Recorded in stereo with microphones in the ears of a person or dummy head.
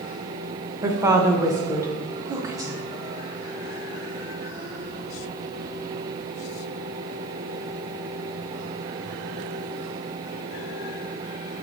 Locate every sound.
0.8 s a woman speaking: 15° right (ahead or behind), 0.5 m